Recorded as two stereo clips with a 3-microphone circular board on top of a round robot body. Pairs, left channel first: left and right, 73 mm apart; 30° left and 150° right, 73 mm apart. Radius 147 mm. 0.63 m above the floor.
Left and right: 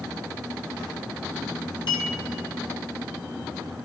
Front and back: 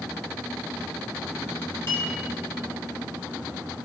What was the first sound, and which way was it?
A clink, 90° left.